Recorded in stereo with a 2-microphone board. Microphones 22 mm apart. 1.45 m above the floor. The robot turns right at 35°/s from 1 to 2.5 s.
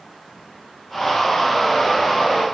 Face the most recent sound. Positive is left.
No sound to turn to.